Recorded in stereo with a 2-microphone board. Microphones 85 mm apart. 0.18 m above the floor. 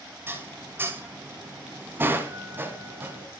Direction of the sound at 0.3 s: 25° right (ahead or behind).